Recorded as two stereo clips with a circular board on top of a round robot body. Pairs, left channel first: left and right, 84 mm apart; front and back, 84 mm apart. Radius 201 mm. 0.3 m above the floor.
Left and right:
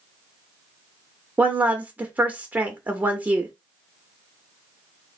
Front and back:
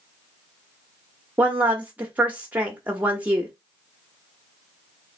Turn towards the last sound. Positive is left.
turn(degrees=-135)